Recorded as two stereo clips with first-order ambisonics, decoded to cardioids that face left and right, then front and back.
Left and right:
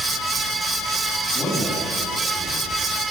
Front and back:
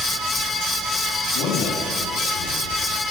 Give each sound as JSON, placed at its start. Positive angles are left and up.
{"t": 1.3, "sound": "a man speaking", "azimuth_deg": 15, "distance_m": 7.0}